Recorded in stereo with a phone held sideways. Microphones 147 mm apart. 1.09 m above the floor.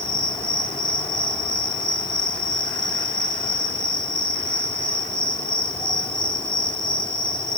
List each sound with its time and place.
0.0 s an insect: 30° left (ahead or behind), 1.4 m